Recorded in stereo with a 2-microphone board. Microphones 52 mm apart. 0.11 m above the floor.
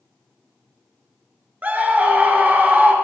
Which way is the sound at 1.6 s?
30° right (ahead or behind).